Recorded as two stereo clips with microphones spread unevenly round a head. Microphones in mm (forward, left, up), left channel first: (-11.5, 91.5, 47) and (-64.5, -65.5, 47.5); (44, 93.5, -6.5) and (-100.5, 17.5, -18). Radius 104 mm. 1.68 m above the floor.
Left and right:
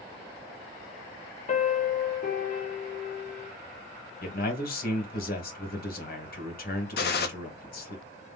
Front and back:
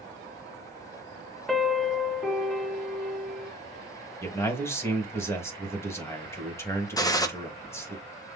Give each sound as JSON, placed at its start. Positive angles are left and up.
{"t": 1.5, "sound": "a piano", "azimuth_deg": 115, "distance_m": 1.7}
{"t": 4.2, "sound": "a man speaking", "azimuth_deg": 100, "distance_m": 3.0}
{"t": 7.0, "sound": "a gunshot", "azimuth_deg": 95, "distance_m": 1.4}